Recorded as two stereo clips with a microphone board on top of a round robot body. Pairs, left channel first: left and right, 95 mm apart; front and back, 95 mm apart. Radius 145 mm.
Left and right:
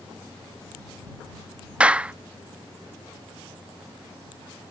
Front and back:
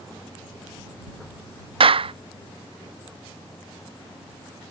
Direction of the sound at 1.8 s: 170° right.